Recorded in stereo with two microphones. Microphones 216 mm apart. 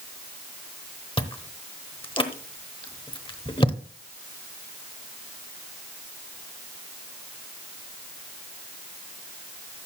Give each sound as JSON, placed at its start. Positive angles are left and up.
{"t": 1.2, "sound": "chewing", "side_deg": 25, "distance_m": 0.9}